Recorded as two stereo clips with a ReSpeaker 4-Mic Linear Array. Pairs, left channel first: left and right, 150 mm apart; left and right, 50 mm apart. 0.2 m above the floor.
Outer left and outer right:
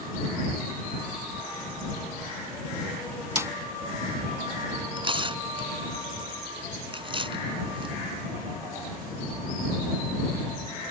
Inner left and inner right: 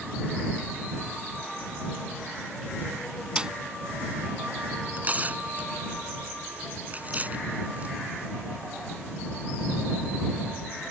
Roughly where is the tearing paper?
Right.